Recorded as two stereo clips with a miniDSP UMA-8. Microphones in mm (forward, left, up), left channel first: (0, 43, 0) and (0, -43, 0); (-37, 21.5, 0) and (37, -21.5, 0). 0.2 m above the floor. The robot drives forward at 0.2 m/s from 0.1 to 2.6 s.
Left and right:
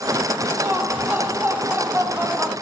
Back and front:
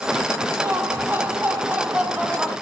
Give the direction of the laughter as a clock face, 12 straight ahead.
2 o'clock.